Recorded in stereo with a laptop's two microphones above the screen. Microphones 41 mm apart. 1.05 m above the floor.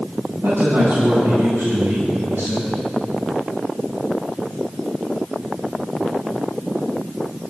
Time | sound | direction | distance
0.4 | a woman speaking | 75° right (ahead or behind) | 8 m